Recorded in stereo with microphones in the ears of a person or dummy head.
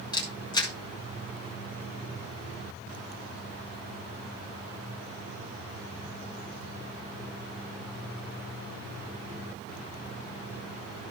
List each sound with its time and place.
0.1 s a camera shutter: 20° left (ahead or behind), 1.8 m